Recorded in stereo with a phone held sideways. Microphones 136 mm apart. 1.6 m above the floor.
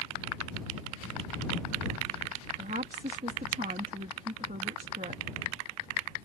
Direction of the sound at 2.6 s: 85° right.